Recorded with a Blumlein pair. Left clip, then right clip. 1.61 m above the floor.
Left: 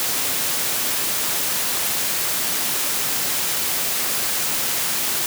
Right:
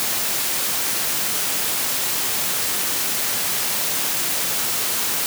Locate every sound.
Only background noise.